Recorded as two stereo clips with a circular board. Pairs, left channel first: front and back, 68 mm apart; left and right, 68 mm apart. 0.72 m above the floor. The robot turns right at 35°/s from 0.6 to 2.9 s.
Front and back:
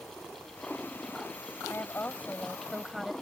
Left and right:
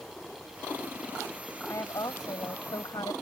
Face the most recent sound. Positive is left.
turn(degrees=95)